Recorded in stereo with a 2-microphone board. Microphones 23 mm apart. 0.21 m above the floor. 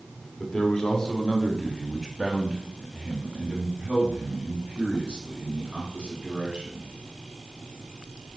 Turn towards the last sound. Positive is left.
turn(degrees=-65)  # may be behind; listen again after turning